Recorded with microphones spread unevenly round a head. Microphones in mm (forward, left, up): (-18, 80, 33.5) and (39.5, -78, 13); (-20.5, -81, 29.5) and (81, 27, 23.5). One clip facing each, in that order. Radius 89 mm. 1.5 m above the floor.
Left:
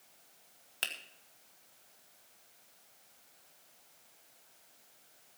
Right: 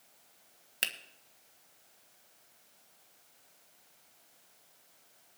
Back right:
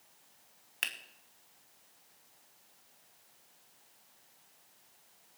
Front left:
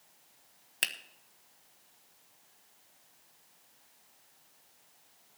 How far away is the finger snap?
About 1.4 m.